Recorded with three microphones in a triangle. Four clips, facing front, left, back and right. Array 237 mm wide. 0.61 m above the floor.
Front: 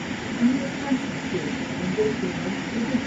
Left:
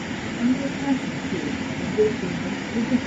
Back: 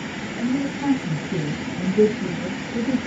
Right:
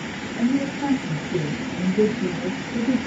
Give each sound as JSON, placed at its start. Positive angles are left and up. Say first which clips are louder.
{"t": 0.4, "sound": "a woman speaking", "louder": "right 1 dB, front 1 dB", "azimuth_deg": -130, "distance_m": 3.5}